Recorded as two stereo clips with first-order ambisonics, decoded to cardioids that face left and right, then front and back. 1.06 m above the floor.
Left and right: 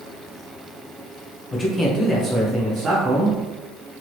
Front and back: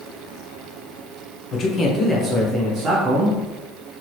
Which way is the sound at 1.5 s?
25° left.